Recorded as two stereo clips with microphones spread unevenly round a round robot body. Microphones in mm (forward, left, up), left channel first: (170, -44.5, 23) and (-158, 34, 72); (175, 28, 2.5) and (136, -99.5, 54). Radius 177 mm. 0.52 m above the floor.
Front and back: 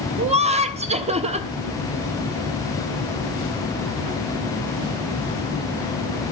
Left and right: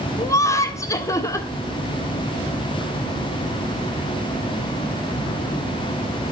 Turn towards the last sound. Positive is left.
turn(degrees=95)